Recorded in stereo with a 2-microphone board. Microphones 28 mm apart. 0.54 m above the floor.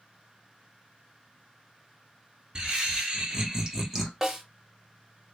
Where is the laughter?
35° right (ahead or behind), 1.3 m; by 4.1 s 5° right (ahead or behind), 1.4 m.